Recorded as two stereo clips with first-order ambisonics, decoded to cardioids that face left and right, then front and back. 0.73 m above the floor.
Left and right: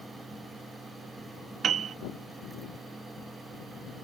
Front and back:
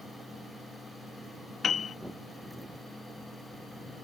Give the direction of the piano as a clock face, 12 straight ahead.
2 o'clock.